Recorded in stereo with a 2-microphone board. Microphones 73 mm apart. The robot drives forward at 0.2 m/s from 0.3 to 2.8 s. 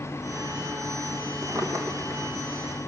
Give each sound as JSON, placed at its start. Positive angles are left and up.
{"t": 1.4, "sound": "a drawer", "side_deg": -45, "distance_m": 3.5}